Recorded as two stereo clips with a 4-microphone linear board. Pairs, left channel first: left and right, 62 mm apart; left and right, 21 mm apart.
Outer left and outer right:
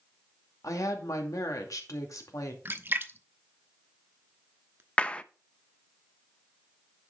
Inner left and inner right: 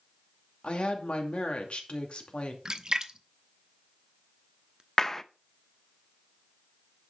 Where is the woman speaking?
75° left (ahead or behind), 2.5 m.